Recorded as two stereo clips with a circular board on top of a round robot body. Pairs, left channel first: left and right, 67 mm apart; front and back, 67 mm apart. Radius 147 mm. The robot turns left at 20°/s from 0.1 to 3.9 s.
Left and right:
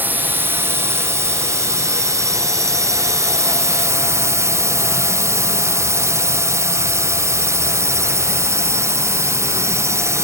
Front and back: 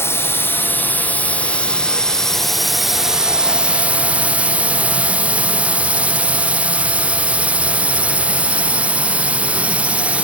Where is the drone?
40° right; by 10.2 s 115° right.